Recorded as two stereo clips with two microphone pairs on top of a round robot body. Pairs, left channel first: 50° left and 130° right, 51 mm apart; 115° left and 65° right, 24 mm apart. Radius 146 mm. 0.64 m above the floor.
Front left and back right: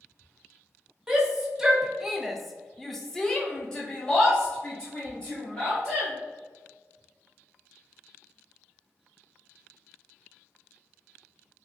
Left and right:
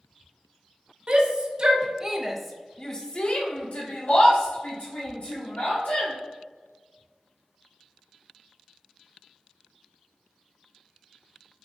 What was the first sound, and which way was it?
A shout, 45° right.